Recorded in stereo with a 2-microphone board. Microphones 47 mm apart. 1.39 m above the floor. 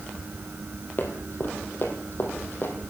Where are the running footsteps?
45° left (ahead or behind), 2 m.